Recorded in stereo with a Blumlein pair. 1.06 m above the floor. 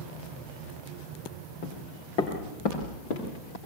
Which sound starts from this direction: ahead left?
Footsteps, at 1.6 s.